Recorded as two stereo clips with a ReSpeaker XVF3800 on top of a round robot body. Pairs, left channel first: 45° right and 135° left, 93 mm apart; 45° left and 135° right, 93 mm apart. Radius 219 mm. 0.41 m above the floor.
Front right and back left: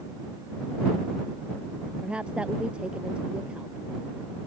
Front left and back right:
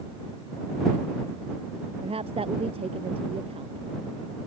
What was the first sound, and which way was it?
A woman speaking, 145° right.